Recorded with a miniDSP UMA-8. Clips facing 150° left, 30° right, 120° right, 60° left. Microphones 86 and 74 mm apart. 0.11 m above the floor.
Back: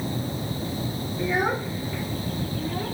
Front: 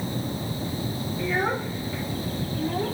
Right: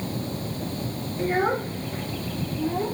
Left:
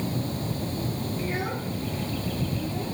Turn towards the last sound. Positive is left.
turn(degrees=-90)